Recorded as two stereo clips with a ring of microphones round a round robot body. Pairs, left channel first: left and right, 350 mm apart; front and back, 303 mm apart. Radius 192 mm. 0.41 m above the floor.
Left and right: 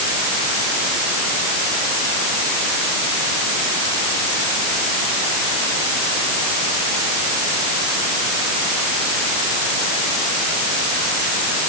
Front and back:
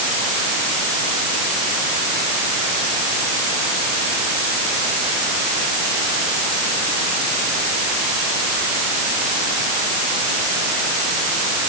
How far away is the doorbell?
I don't hear a doorbell.